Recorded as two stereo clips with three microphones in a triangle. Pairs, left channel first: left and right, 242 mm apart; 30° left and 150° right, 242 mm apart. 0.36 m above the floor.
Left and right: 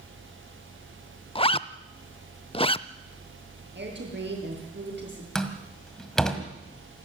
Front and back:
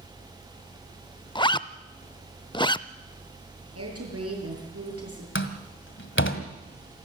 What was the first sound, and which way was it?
A zipper, 70° left.